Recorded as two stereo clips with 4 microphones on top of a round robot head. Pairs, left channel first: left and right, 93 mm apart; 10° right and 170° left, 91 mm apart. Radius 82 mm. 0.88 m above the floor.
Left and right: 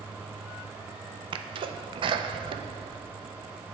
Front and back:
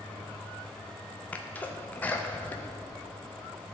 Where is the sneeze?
80° right, 0.6 m.